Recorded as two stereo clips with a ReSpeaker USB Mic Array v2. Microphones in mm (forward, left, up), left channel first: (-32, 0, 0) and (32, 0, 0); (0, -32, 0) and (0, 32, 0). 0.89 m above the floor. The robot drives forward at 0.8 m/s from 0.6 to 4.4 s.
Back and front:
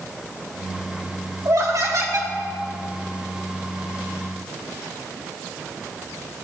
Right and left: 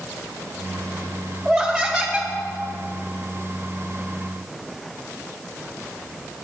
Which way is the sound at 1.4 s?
Straight ahead.